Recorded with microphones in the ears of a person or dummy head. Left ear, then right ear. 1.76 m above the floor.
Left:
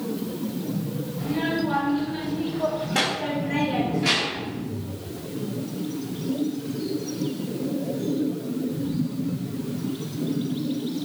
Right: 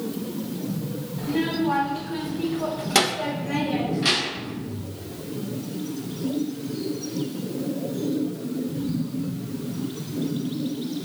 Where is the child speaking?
30° right (ahead or behind), 2.5 m; by 4.5 s 25° right (ahead or behind), 2 m.